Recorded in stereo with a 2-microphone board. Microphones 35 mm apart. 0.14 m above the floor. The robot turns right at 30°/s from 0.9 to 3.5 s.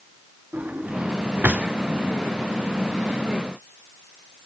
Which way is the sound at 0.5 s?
45° right (ahead or behind).